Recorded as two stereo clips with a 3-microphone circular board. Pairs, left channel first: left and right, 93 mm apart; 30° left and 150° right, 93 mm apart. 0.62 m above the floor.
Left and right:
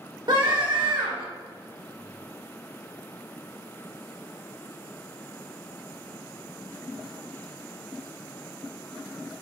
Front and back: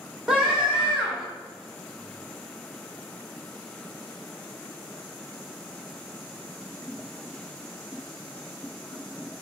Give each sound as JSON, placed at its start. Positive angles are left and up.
{"t": 0.3, "sound": "a scream", "azimuth_deg": -70, "distance_m": 2.5}